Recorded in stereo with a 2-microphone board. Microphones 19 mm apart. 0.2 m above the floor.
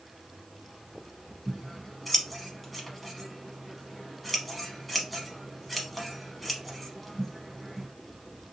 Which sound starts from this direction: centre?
Scissors, at 1.5 s.